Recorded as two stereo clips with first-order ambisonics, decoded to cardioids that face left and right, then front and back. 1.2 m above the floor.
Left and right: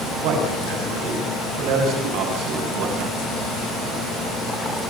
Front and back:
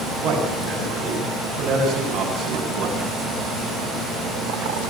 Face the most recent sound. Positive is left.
turn(degrees=-120)